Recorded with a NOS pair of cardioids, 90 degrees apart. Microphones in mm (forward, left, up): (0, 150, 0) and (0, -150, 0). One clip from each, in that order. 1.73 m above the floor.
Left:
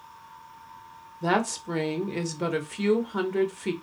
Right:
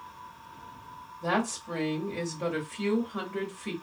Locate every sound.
1.2 s a woman speaking: 30° left, 0.8 m